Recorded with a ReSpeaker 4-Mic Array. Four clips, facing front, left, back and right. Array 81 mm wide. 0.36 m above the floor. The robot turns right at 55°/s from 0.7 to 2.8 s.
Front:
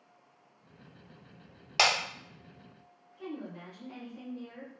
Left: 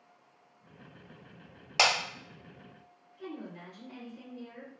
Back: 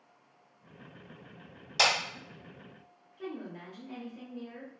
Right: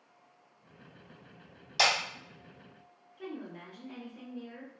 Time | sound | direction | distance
1.8 | breaking glass | 55° left | 1.4 m
3.2 | a woman speaking | 145° right | 0.9 m